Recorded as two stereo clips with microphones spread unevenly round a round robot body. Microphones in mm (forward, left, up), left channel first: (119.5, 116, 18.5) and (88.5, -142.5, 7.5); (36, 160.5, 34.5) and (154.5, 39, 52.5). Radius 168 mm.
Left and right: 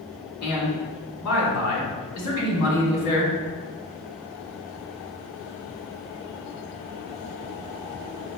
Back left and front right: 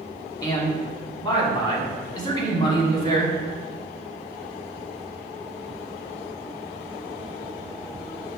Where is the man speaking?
70° left, 1.6 m.